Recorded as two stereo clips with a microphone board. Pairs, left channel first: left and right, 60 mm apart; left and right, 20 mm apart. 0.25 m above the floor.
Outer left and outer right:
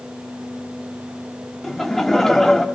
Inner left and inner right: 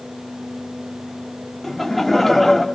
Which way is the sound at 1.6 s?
5° left (ahead or behind).